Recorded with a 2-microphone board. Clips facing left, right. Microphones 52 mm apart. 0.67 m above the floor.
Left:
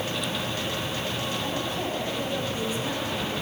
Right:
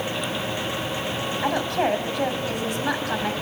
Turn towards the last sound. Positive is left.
turn(degrees=-70)  # may be behind; listen again after turning